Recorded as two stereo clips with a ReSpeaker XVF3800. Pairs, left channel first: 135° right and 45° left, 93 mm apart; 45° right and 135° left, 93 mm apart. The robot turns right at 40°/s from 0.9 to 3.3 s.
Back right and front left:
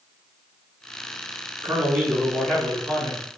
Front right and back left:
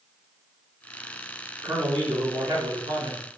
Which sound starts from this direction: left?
A man speaking, at 1.6 s.